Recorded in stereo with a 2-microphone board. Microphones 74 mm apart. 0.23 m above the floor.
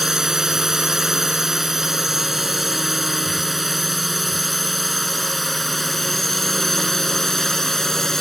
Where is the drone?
5° right (ahead or behind); by 8.2 s 5° left (ahead or behind).